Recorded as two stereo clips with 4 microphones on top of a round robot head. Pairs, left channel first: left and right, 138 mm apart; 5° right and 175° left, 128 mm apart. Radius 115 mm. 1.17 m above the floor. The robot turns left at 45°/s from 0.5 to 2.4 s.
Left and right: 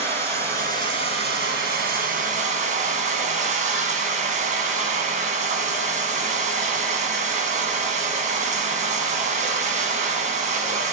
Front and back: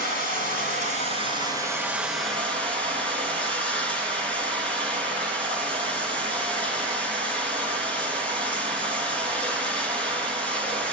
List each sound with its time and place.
0.0 s running water: 35° right, 2.5 m; by 10.9 s 120° right, 2.5 m